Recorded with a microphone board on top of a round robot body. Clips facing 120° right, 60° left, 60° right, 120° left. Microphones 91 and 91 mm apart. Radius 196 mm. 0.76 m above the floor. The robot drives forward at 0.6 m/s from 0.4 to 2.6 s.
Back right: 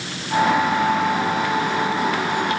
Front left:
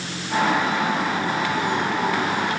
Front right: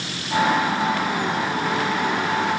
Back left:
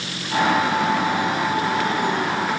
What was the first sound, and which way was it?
Only background noise.